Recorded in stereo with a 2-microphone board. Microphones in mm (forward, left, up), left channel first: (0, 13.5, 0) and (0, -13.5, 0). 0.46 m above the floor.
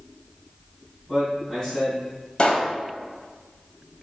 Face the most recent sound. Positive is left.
turn(degrees=35)  # may be behind; listen again after turning